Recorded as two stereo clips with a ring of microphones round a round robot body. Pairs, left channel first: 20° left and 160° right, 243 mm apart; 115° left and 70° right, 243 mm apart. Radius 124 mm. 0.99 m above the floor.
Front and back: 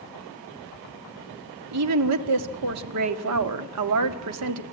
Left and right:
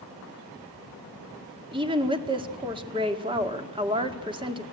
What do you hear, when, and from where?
1.7 s a woman speaking: 140° right, 1.9 m